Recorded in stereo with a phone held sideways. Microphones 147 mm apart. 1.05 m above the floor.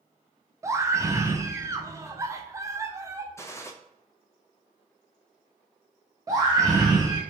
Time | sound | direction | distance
0.6 | a scream | 20° right (ahead or behind) | 0.5 m
3.4 | a gunshot | 20° left (ahead or behind) | 0.5 m
6.3 | a scream | 25° right (ahead or behind) | 0.6 m